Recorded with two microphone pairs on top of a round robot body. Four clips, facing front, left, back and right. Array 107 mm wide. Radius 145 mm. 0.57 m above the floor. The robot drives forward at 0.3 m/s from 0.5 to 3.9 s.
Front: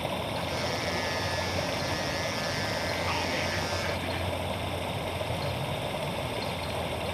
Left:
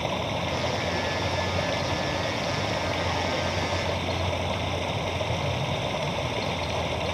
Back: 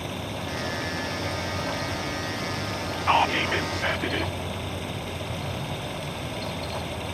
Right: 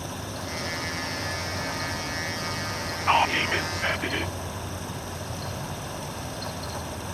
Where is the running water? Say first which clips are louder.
Left 7 dB, front 1 dB; 75° left; by 7.2 s 80° left.